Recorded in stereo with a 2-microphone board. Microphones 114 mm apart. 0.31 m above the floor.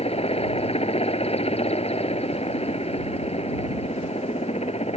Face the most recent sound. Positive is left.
turn(degrees=70)  # may be behind; listen again after turning